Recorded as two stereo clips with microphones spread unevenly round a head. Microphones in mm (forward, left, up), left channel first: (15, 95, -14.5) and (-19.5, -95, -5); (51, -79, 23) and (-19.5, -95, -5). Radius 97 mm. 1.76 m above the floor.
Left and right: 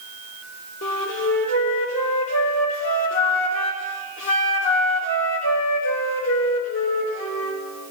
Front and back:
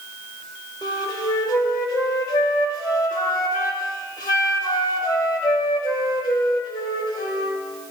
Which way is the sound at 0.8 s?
60° left.